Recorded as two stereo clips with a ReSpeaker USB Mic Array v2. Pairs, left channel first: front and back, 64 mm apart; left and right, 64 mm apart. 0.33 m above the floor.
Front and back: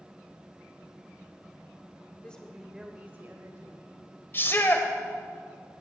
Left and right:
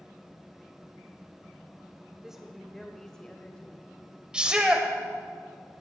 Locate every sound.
2.2 s a woman speaking: 25° right, 1.0 m; by 4.1 s 160° left, 1.8 m
4.3 s a shout: 25° right, 1.2 m